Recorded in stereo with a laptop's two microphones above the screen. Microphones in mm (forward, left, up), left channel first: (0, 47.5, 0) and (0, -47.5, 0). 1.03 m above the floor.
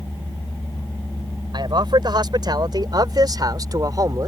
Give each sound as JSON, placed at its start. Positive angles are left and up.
{"t": 1.5, "sound": "a man speaking", "side_deg": -55}